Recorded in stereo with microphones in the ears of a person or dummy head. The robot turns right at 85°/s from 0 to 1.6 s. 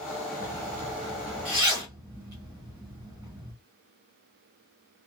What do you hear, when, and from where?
0.4 s a zipper: 50° left (ahead or behind), 1.0 m; by 3.5 s 10° right (ahead or behind), 1.0 m